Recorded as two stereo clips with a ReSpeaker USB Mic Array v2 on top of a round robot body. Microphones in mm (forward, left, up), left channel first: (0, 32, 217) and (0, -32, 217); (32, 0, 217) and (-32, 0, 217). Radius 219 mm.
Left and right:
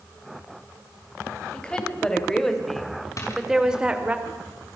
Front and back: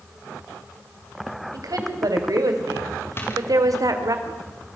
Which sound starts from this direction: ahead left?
A door slam, at 3.2 s.